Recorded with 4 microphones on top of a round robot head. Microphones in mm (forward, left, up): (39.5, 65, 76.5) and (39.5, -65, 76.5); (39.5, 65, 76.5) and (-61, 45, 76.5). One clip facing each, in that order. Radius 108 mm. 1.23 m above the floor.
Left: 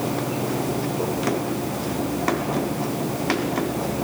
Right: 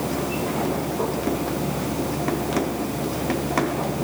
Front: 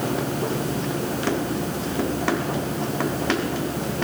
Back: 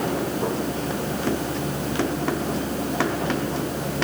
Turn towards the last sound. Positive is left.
No sound to turn to.